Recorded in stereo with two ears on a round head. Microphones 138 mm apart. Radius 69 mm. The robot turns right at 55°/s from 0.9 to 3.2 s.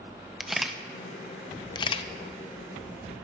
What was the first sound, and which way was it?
A camera shutter, centre (ahead or behind).